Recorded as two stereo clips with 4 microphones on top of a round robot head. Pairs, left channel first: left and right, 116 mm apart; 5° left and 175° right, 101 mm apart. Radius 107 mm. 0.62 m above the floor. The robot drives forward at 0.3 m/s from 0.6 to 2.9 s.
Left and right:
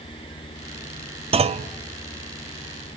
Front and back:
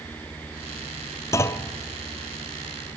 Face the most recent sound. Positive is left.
turn(degrees=-110)